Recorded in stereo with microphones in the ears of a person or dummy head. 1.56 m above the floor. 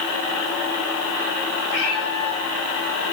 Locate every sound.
1.7 s a cat meowing: 5° right (ahead or behind), 5 m